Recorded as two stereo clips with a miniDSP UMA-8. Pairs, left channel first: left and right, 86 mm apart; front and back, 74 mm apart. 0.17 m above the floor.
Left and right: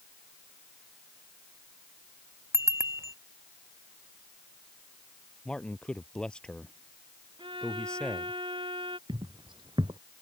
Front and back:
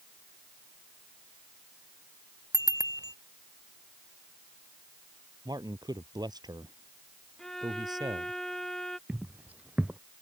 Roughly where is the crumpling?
I don't hear crumpling.